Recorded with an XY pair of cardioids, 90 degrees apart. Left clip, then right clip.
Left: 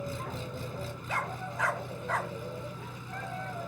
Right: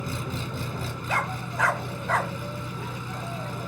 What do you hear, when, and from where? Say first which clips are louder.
0.0 s an engine running: right 4 dB; 60° right
1.1 s a dog barking: right 6 dB; 50° right